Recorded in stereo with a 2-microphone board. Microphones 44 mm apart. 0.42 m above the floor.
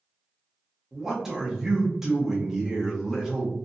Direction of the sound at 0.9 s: 10° right (ahead or behind).